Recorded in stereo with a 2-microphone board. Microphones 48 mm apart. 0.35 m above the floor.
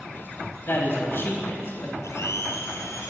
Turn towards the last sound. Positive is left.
turn(degrees=85)